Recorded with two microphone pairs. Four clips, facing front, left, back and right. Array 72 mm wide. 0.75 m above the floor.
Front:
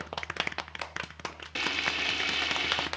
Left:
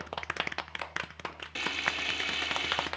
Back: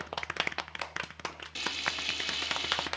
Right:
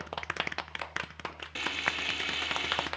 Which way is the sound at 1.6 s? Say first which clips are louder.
Even, front 5 dB; straight ahead.